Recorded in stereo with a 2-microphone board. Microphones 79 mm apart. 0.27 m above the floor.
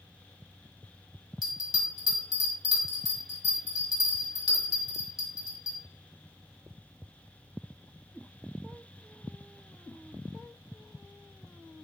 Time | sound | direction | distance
1.4 | a bell | 50° left (ahead or behind) | 0.9 m